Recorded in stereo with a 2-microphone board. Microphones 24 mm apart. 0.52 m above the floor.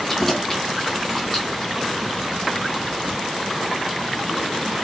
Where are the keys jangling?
10° left (ahead or behind), 2.5 m; by 1.7 s 30° left (ahead or behind), 3 m.